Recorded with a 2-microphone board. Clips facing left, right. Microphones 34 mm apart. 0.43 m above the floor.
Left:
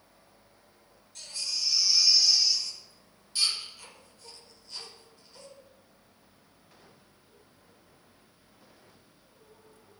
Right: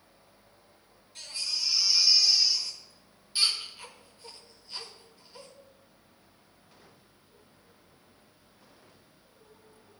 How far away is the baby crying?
About 1.1 m.